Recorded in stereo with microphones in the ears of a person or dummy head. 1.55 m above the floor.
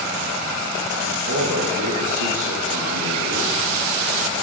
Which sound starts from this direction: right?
A man speaking, at 1.3 s.